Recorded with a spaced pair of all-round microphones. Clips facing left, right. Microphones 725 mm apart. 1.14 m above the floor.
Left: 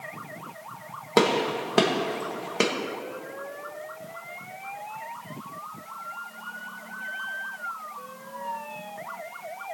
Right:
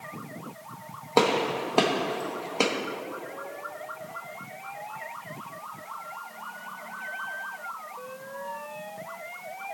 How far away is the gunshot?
About 1.2 m.